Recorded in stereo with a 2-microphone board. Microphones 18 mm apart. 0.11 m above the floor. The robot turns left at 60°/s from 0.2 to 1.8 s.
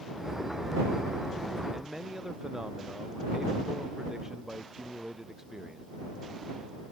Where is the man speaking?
35° right (ahead or behind); by 5.9 s 30° right (ahead or behind).